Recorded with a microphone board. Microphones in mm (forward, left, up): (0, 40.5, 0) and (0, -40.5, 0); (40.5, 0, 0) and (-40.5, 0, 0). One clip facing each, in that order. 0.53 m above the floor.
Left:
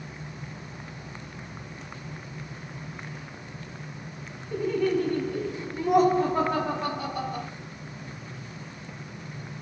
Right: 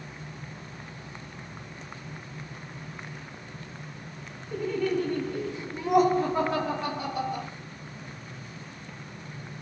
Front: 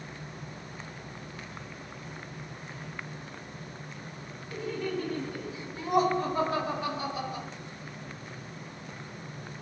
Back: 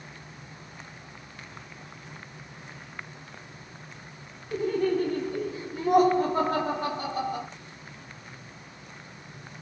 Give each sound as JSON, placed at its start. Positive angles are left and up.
{"t": 4.5, "sound": "laughter", "azimuth_deg": 180, "distance_m": 1.4}